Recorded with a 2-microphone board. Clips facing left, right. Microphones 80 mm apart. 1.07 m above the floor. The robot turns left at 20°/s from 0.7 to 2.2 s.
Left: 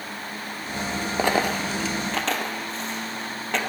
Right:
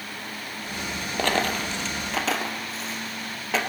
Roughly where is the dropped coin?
Centre.